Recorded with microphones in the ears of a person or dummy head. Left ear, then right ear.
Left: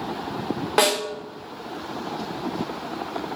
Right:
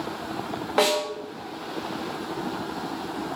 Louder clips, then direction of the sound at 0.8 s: Left 1 dB; 15° left (ahead or behind).